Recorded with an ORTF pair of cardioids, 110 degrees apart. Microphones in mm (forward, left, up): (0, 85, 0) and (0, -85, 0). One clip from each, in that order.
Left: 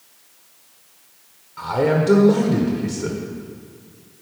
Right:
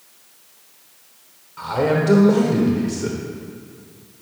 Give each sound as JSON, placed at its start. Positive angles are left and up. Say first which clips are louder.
{"t": 1.6, "sound": "a man speaking", "louder": "even", "azimuth_deg": 15, "distance_m": 1.1}